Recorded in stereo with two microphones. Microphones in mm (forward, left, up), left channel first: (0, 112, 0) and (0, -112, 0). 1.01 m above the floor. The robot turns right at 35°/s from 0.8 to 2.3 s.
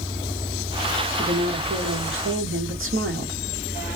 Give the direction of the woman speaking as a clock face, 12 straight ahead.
5 o'clock.